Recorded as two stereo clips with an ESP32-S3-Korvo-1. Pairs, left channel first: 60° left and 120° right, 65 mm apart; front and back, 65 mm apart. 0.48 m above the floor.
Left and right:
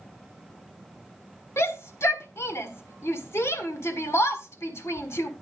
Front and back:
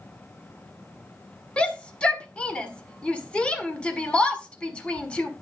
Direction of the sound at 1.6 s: 65° left.